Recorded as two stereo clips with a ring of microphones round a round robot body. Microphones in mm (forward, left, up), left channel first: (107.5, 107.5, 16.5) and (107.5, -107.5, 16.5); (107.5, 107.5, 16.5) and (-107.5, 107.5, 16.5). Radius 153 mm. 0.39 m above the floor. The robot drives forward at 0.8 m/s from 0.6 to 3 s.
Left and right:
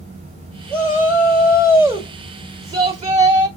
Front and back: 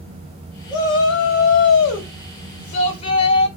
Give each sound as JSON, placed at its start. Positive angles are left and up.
{"t": 0.7, "sound": "a shout", "azimuth_deg": -10, "distance_m": 2.5}